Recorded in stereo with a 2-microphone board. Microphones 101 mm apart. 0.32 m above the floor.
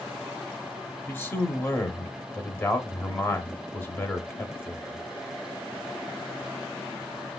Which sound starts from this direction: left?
A man speaking, at 1.1 s.